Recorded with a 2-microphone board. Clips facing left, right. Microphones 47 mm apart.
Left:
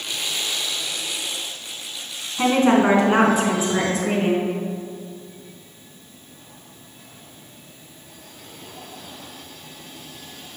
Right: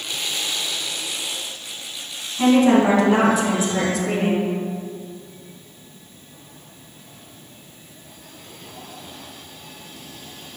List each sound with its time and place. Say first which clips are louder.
2.4 s a woman speaking: right 2 dB; 40° left (ahead or behind), 2 m; by 4.5 s 30° left (ahead or behind), 3 m